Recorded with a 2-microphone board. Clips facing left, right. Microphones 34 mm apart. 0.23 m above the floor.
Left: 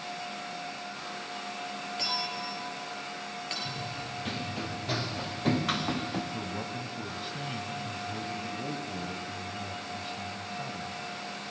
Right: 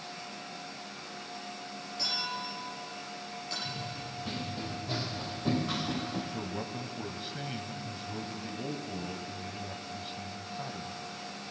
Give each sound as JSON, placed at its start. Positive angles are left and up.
{"t": 2.0, "sound": "a clink", "side_deg": 50, "distance_m": 3.5}
{"t": 3.6, "sound": "running footsteps", "side_deg": 70, "distance_m": 3.5}
{"t": 6.3, "sound": "a man speaking", "side_deg": 0, "distance_m": 0.9}